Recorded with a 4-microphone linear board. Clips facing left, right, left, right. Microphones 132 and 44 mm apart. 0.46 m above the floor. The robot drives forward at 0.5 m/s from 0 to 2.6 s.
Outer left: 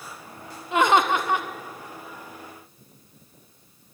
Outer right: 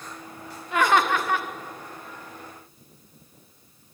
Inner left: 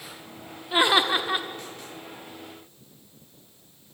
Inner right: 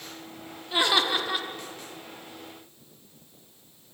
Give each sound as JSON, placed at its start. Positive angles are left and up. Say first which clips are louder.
{"t": 0.7, "sound": "laughter", "louder": "outer left 2 dB, inner left 3 dB", "side_deg": 20, "distance_m": 1.0}